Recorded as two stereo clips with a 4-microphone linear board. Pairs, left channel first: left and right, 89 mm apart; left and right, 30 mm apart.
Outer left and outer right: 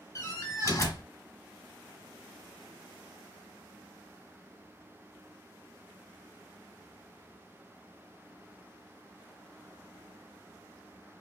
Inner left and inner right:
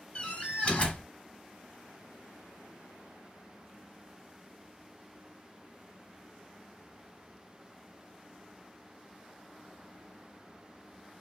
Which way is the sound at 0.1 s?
40° left (ahead or behind).